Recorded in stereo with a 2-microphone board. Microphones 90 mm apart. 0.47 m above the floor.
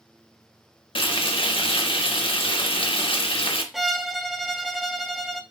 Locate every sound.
0.9 s frying: 75° left (ahead or behind), 0.6 m
3.7 s a violin: 5° right (ahead or behind), 0.5 m